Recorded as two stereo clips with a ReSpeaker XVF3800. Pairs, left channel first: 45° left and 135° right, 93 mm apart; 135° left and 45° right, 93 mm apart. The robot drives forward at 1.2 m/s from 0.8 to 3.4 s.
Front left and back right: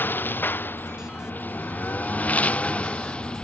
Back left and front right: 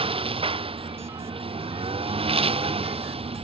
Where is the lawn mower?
25° right; by 3.4 s 35° right.